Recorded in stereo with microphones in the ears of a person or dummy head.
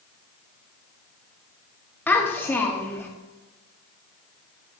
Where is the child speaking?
10° left (ahead or behind), 1.5 m.